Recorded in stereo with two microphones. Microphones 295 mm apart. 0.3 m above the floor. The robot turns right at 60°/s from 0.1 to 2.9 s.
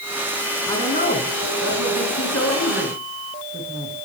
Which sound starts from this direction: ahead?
A woman speaking, at 0.7 s.